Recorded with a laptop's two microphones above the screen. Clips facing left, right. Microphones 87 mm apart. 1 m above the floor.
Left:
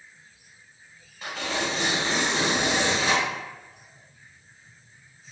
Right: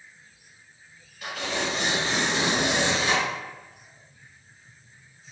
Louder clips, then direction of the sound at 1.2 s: Even; 35° left (ahead or behind).